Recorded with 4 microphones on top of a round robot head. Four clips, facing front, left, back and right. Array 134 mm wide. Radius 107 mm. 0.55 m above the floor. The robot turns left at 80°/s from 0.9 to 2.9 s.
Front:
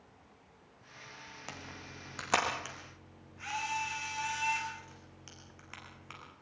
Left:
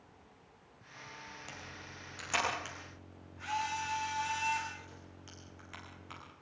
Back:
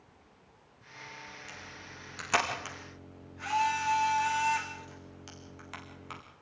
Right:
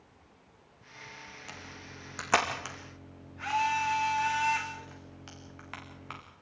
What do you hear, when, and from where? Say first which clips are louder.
1.5 s a camera shutter: right 2 dB, front 1 dB; 5° left, 7.5 m; by 6.2 s 110° right, 7.5 m